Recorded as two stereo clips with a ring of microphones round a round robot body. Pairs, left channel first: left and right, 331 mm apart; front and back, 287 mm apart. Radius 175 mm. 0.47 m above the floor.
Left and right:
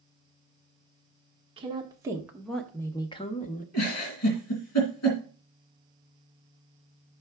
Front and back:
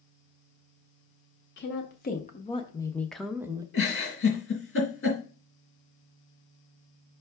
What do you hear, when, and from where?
1.6 s a woman speaking: 25° right, 1.1 m; by 3.6 s 115° left, 0.9 m
3.7 s a giggle: 45° left, 2.5 m